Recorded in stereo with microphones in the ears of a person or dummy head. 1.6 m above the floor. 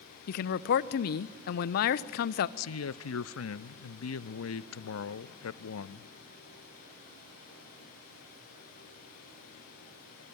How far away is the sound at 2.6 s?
About 0.7 m.